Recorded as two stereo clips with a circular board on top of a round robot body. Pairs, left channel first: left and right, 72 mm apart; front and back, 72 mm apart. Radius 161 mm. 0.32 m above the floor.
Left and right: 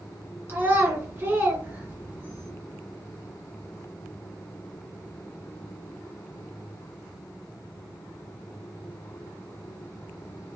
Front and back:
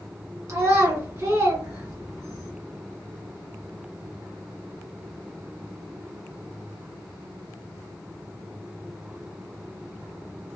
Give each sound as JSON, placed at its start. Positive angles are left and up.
{"t": 0.5, "sound": "a child speaking", "azimuth_deg": -145, "distance_m": 1.8}